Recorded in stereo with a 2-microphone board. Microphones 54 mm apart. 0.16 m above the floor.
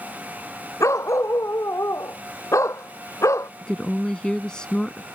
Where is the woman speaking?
15° left (ahead or behind).